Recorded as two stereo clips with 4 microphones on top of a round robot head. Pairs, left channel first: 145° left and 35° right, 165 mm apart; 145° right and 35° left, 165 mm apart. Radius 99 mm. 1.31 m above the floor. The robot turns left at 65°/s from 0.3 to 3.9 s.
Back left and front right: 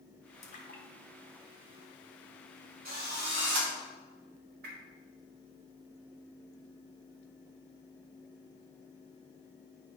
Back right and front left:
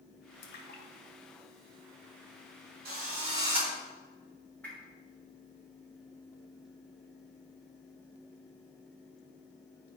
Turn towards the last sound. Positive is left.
turn(degrees=-65)